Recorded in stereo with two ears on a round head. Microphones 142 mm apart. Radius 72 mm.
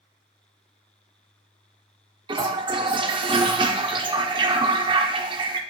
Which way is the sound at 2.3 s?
30° right (ahead or behind).